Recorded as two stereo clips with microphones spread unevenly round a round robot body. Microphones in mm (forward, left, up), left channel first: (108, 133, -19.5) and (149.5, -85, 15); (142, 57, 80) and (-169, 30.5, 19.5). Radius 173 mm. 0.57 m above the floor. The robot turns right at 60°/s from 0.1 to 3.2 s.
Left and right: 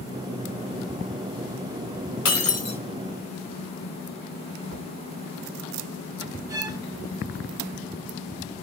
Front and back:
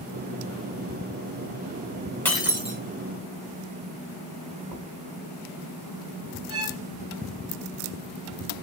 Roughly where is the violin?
Behind.